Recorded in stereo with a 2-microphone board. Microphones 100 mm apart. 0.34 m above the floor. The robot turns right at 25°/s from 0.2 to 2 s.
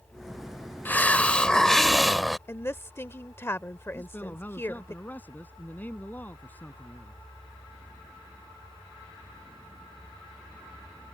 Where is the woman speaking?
25° left (ahead or behind).